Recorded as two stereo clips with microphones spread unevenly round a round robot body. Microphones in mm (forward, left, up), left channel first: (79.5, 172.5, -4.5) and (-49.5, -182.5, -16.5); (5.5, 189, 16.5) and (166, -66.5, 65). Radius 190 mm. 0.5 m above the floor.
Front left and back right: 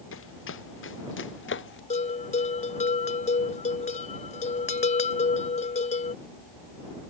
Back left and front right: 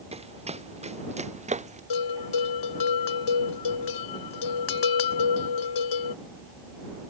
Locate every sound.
0.1 s running footsteps: 10° left
1.9 s a bell: 145° left